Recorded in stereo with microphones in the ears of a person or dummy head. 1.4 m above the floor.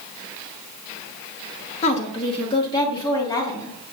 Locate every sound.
1.8 s a woman speaking: 35° left (ahead or behind), 1.1 m; by 3.8 s 20° left (ahead or behind), 2.0 m